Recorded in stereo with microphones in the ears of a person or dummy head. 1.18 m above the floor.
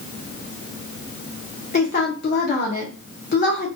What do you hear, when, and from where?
1.7 s a woman speaking: 55° left (ahead or behind), 0.9 m